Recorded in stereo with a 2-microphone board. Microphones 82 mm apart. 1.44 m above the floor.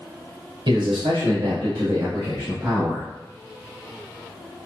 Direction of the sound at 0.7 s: 70° right (ahead or behind).